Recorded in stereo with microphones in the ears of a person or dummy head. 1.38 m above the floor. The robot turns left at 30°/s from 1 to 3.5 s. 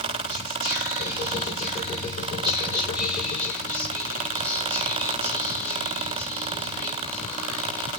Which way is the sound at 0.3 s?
115° right.